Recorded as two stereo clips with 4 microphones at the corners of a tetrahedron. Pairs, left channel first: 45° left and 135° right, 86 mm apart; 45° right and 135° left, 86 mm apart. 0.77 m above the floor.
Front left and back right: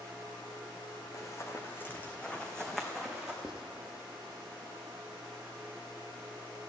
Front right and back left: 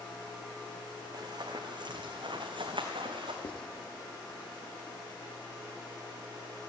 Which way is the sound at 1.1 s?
95° left.